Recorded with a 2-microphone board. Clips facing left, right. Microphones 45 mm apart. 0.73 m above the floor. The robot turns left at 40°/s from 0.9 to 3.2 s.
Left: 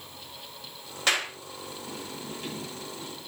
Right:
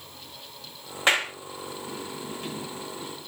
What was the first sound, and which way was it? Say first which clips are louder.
A clap: right 4 dB; 25° right (ahead or behind).